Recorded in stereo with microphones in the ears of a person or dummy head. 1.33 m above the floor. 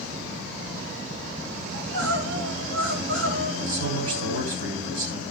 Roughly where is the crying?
Right.